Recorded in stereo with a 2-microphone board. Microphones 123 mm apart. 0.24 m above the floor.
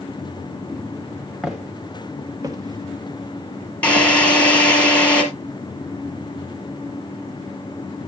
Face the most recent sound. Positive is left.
turn(degrees=10)  # may be behind; listen again after turning